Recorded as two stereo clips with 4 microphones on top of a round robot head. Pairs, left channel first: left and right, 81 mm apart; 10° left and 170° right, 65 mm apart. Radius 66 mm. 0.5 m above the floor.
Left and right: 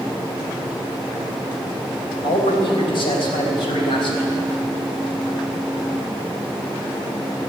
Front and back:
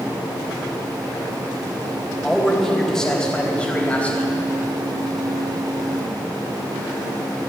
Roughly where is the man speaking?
Left.